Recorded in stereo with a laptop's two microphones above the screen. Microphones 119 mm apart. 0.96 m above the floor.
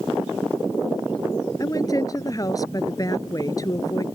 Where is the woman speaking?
30° left (ahead or behind).